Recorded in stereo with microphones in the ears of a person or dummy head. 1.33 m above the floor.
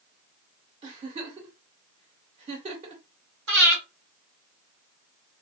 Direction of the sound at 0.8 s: 30° right (ahead or behind).